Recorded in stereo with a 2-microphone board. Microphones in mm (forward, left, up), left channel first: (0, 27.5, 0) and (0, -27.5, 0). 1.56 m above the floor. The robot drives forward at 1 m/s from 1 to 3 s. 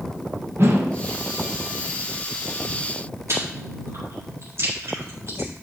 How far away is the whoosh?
About 1.2 m.